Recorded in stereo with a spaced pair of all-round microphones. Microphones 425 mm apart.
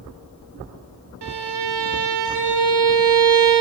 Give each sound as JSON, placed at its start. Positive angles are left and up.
{"t": 1.2, "sound": "a violin", "side_deg": -80, "distance_m": 0.8}